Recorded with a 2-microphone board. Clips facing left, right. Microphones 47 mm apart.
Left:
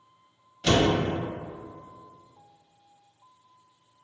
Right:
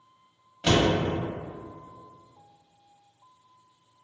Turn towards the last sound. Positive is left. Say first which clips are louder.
# even
turn(degrees=-20)  # may be behind; listen again after turning